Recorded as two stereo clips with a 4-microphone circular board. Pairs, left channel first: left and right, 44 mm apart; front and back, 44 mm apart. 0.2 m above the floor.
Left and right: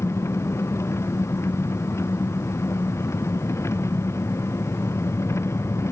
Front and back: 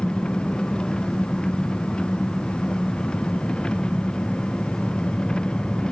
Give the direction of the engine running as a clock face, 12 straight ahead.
10 o'clock.